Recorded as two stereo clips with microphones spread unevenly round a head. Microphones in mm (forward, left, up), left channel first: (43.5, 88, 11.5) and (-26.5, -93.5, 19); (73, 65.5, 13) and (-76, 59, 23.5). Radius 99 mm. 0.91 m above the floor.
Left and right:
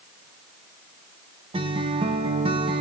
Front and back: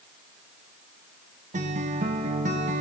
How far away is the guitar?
About 1.0 m.